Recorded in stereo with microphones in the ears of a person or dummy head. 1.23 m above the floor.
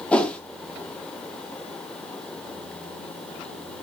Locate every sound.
0.1 s a whoosh: 5° left (ahead or behind), 1.0 m